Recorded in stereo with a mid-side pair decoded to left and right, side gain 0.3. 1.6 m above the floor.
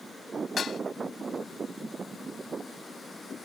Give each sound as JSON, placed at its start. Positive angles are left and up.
{"t": 0.6, "sound": "dishes clattering", "azimuth_deg": 65}